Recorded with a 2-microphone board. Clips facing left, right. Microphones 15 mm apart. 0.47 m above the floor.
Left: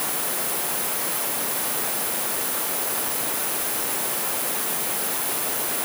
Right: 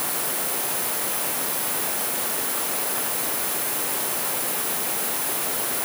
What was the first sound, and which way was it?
Only background noise.